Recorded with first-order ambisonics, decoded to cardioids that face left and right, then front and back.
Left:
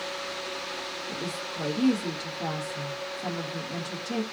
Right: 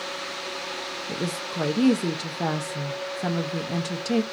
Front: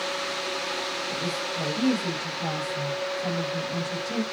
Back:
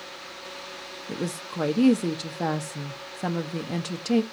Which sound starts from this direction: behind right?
A woman speaking, at 1.1 s.